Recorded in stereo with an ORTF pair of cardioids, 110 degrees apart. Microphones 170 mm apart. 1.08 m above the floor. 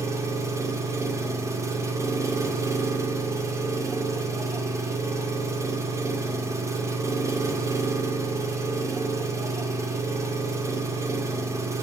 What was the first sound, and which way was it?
An engine running, 20° right.